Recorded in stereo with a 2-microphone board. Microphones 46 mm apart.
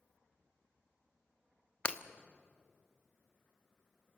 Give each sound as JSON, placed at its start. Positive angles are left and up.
{"t": 1.9, "sound": "breaking glass", "side_deg": 25, "distance_m": 1.1}